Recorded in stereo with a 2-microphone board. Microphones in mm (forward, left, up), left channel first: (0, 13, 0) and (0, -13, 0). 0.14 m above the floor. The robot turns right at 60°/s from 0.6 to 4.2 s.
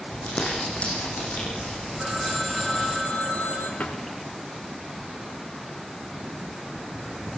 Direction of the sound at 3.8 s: 65° left (ahead or behind).